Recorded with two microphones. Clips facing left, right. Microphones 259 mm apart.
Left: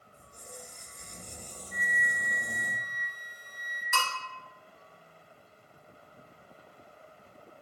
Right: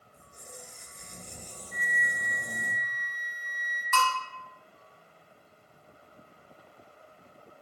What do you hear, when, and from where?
0.1 s a squeak: 5° right (ahead or behind), 1.7 m
1.7 s a flute: 15° left (ahead or behind), 2 m
3.9 s a bell: 15° left (ahead or behind), 1.1 m